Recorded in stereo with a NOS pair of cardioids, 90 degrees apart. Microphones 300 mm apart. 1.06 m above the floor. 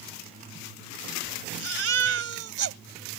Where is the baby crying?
50° right.